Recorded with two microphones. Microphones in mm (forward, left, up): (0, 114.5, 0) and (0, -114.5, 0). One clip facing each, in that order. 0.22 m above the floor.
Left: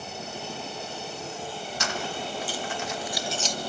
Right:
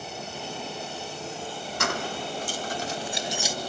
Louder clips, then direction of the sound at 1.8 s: Right 3 dB; 60° right (ahead or behind).